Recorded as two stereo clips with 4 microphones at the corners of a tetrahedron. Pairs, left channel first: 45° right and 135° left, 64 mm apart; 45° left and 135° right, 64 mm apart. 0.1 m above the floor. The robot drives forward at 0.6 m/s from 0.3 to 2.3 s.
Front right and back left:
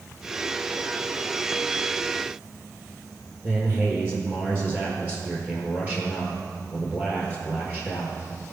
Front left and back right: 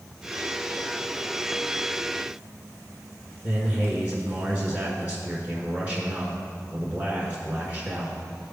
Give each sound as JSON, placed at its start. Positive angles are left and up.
{"t": 3.4, "sound": "a man speaking", "azimuth_deg": 180, "distance_m": 1.5}